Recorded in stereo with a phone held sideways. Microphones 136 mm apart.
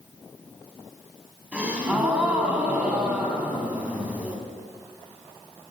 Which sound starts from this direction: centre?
A gasp, at 1.5 s.